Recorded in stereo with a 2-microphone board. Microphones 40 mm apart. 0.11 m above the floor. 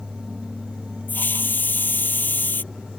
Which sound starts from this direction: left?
A hiss, at 1.1 s.